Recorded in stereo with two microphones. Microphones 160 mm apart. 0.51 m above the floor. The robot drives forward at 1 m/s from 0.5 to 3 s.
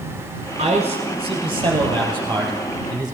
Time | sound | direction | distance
0.6 | a man speaking | 45° right (ahead or behind) | 2.5 m